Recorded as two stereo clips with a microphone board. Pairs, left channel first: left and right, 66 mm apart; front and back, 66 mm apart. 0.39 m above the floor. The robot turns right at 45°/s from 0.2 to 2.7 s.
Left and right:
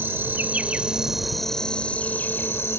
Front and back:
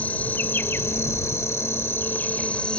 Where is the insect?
50° right; by 2.8 s 60° left.